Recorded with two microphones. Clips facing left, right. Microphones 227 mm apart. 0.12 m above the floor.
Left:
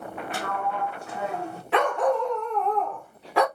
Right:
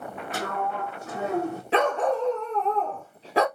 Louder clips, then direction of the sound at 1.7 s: Left 1 dB; 25° right (ahead or behind).